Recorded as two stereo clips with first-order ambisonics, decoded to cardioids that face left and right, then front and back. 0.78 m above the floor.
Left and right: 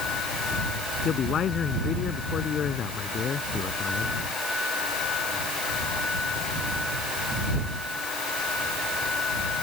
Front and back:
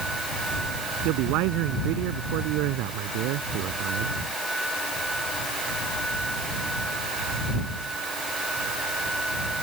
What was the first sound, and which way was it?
A man speaking, 150° left.